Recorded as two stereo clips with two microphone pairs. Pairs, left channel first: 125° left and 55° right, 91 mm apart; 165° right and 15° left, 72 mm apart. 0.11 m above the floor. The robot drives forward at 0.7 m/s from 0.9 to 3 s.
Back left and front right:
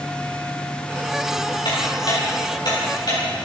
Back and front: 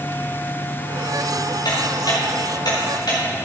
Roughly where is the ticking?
Behind.